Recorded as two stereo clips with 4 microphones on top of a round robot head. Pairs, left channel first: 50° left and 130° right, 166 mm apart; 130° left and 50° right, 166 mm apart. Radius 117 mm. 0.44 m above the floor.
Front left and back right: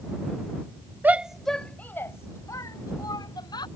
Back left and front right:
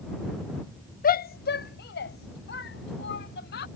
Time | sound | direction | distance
1.0 | a shout | 150° left | ?